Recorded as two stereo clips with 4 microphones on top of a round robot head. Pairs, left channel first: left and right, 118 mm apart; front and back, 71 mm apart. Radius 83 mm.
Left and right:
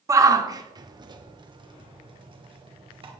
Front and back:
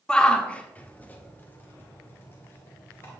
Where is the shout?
65° right, 1.2 m; by 3.1 s 50° right, 2.5 m.